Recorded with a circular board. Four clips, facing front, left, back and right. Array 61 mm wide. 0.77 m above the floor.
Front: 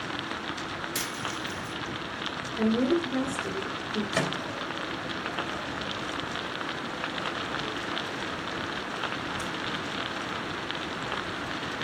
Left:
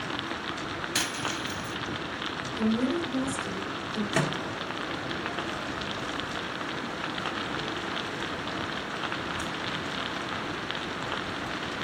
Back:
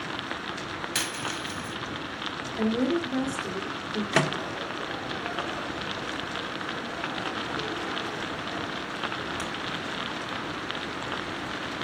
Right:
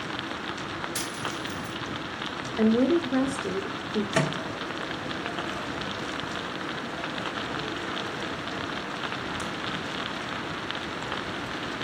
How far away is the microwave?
About 1.6 m.